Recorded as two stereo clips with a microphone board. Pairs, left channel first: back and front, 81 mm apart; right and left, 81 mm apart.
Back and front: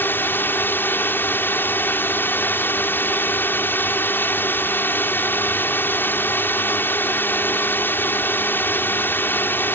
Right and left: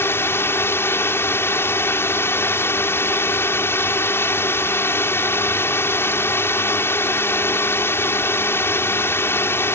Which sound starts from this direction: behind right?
A drone, at 0.0 s.